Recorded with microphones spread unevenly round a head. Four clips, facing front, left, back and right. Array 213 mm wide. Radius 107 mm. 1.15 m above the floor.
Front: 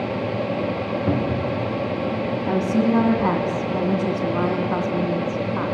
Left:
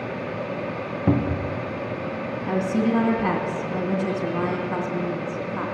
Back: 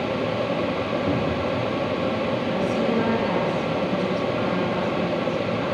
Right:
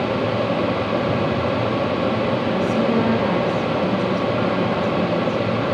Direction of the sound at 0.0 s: 95° right.